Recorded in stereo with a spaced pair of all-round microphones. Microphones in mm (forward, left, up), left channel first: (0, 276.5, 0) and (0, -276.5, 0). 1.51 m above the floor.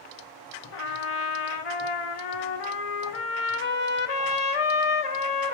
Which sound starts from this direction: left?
A trumpet, at 0.7 s.